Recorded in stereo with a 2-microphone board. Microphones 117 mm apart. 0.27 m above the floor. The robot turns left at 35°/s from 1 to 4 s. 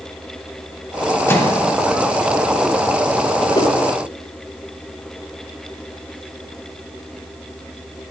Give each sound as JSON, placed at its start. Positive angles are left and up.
{"t": 1.3, "sound": "a microwave", "side_deg": 20, "distance_m": 1.3}
{"t": 3.5, "sound": "a whoosh", "side_deg": 35, "distance_m": 1.0}